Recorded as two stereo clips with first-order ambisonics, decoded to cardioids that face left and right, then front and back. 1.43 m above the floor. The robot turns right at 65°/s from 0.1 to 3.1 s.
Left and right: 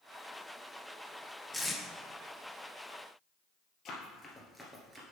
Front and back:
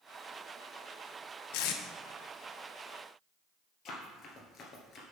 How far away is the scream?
I don't hear a scream.